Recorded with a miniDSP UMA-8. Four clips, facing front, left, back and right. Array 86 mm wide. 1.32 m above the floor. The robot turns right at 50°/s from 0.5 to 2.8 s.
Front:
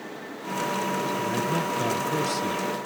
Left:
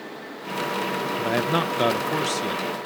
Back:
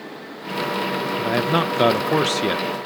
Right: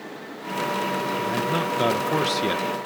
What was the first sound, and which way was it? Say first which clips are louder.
A man speaking: left 5 dB, back 6 dB; 140° left.